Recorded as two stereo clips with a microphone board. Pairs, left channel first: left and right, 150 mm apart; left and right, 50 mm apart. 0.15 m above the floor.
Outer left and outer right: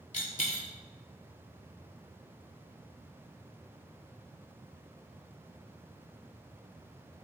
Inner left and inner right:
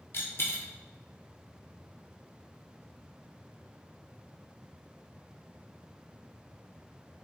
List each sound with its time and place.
0.1 s a dropped coin: 55° left (ahead or behind), 0.8 m